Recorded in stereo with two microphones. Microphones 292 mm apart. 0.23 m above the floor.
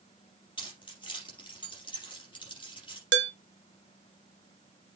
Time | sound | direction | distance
0.6 | keys jangling | 15° left (ahead or behind) | 4 m
3.1 | dishes clattering | 40° right (ahead or behind) | 1.0 m